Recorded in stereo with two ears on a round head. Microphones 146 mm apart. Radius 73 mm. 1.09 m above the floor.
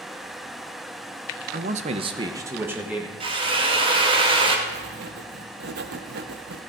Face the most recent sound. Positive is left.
turn(degrees=-75)  # may be behind; listen again after turning